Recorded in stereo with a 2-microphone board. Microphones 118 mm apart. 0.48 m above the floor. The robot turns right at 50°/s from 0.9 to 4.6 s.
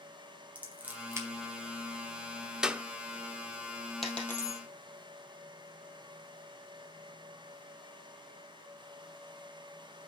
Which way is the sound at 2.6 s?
5° right (ahead or behind).